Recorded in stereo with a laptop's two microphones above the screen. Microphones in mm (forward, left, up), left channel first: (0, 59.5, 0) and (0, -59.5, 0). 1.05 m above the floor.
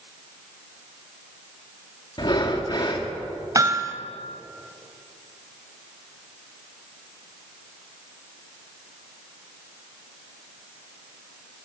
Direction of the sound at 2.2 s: 40° left (ahead or behind).